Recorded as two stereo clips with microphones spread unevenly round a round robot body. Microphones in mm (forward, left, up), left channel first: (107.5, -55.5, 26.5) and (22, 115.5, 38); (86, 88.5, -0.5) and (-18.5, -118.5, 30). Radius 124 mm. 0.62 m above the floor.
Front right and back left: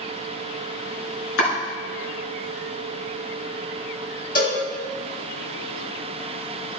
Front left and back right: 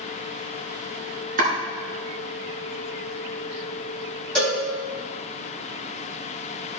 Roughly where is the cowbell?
Ahead right.